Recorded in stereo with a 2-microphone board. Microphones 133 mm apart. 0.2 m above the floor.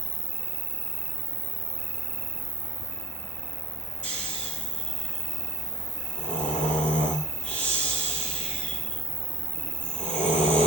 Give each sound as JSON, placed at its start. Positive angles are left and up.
{"t": 0.0, "sound": "an insect", "side_deg": -40, "distance_m": 1.2}
{"t": 4.0, "sound": "snoring", "side_deg": 85, "distance_m": 9.0}